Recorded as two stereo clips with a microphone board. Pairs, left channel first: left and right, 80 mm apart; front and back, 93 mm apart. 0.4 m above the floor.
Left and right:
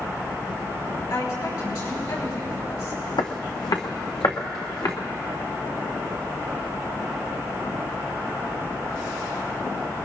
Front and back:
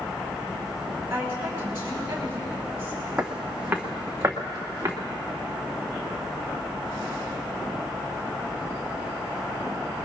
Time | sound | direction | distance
1.1 | a woman speaking | 120° left | 7 m
3.2 | footsteps | 100° left | 1.3 m